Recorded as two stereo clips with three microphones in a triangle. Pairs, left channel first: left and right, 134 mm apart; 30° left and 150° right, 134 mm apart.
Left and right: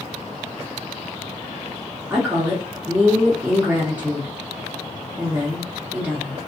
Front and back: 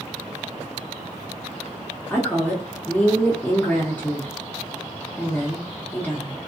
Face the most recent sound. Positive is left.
turn(degrees=-30)